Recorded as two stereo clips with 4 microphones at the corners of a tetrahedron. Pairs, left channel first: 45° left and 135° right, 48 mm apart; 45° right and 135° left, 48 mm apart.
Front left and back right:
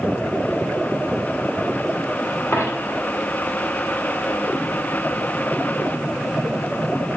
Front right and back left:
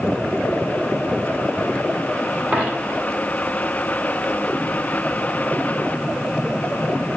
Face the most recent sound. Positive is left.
turn(degrees=75)